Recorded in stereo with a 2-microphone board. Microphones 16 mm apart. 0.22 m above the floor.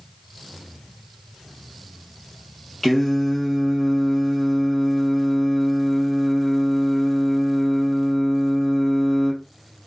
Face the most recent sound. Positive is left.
turn(degrees=25)  # may be behind; listen again after turning